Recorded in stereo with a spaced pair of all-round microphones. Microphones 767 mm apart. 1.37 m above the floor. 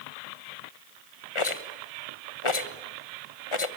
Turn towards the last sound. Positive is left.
turn(degrees=40)  # may be behind; listen again after turning